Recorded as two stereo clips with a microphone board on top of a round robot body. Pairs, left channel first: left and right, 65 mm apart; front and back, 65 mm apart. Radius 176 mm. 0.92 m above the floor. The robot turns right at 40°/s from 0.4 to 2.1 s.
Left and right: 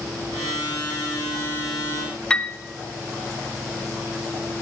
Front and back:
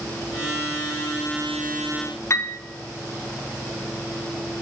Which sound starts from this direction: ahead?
A piano, at 2.3 s.